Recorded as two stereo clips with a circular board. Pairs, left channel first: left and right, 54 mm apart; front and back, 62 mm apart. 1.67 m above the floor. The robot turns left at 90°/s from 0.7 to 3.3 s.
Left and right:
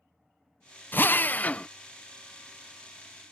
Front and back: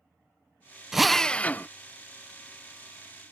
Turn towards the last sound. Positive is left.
turn(degrees=-110)